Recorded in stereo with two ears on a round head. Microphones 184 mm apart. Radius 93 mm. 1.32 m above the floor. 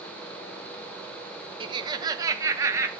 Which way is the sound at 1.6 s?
25° right (ahead or behind).